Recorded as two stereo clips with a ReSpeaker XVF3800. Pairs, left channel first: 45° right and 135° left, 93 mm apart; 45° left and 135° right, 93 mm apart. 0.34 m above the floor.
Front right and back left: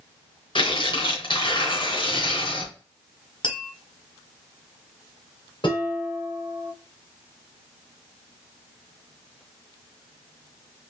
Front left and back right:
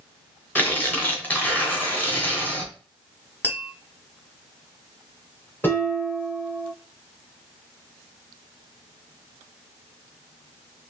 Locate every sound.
0.6 s tearing paper: 25° right, 2.0 m
3.4 s tapping: 25° right, 1.4 m
5.6 s dishes clattering: 20° right, 2.0 m